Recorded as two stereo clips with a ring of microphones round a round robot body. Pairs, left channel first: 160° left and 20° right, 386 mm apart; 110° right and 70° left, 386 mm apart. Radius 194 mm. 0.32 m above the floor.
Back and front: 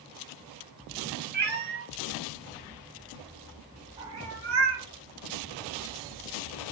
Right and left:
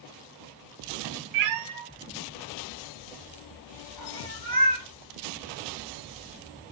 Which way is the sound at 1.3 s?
45° left.